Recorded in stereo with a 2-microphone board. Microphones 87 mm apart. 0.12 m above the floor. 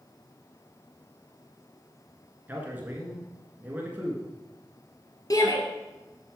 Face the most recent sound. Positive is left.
turn(degrees=40)  # may be behind; listen again after turning